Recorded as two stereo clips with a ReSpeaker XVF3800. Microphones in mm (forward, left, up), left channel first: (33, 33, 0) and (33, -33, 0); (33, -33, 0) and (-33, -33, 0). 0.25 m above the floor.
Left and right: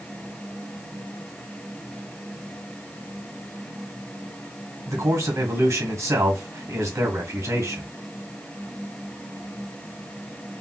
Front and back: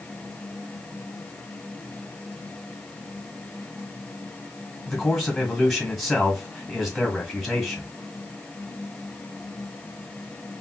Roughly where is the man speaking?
Right.